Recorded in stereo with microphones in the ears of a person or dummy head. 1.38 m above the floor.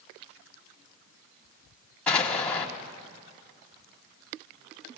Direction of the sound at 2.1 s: Centre (ahead or behind).